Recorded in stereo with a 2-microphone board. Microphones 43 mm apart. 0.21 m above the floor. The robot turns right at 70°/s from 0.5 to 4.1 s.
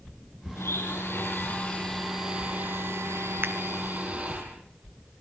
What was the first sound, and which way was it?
A blender, 75° left.